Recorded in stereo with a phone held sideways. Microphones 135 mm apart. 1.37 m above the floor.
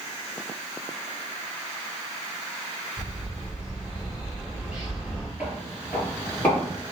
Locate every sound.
3.0 s a bird: 5° right (ahead or behind), 1.4 m
5.4 s footsteps: 10° right (ahead or behind), 1.4 m; by 6.8 s 20° left (ahead or behind), 1.8 m